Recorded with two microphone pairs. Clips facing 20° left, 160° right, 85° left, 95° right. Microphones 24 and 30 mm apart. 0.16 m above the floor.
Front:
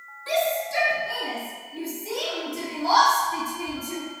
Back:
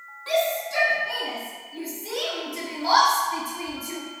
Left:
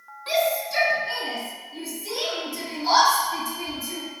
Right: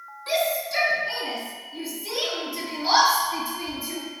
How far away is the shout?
About 1.2 m.